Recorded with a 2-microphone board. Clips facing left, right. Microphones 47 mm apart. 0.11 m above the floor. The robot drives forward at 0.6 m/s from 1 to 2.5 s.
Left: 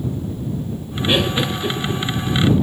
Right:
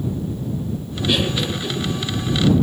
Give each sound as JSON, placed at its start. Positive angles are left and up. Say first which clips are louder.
{"t": 1.1, "sound": "laughter", "louder": "left 2 dB", "side_deg": 25, "distance_m": 1.7}